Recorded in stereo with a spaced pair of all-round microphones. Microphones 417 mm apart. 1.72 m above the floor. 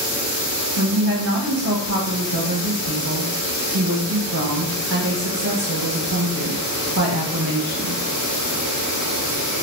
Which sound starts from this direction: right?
A woman speaking, at 0.8 s.